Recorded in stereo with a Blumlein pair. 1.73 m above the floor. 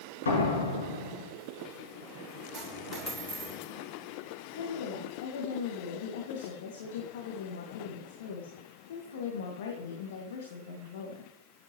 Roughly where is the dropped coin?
Ahead.